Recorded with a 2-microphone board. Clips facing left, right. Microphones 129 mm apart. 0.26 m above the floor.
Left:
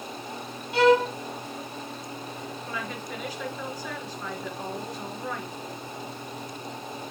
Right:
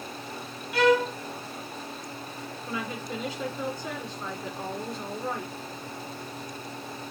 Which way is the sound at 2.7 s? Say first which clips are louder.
Right 3 dB; 25° right (ahead or behind).